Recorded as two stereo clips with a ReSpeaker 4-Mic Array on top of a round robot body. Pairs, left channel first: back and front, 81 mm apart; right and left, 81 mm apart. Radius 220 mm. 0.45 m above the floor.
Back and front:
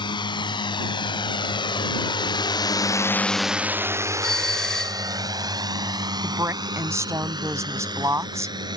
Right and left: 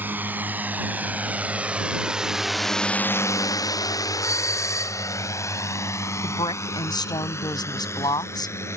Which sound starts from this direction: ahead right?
A woman speaking, at 6.2 s.